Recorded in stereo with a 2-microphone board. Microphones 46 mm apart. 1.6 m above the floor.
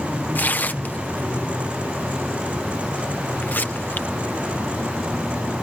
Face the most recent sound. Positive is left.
turn(degrees=45)  # may be behind; listen again after turning